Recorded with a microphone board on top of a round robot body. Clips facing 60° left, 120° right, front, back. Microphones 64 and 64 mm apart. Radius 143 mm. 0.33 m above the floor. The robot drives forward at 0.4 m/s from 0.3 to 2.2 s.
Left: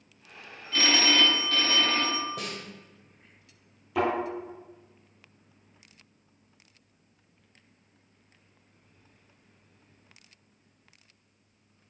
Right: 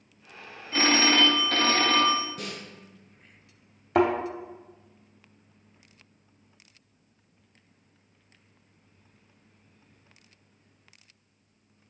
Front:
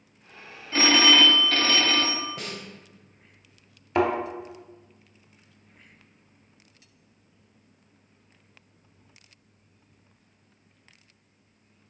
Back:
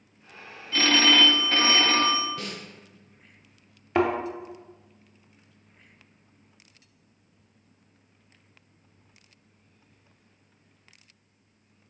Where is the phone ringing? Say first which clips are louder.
Right 2 dB, front 1 dB; 65° right, 0.6 m; by 2.3 s 135° right, 0.7 m.